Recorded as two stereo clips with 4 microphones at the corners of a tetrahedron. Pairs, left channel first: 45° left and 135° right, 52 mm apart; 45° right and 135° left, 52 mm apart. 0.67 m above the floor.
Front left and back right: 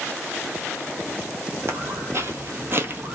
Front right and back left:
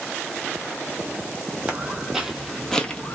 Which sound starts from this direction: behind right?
Footsteps, at 1.7 s.